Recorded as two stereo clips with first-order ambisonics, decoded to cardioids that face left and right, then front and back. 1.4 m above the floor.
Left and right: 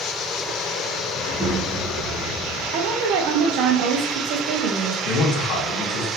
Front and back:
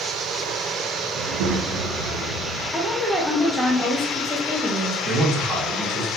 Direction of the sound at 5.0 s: 110° left.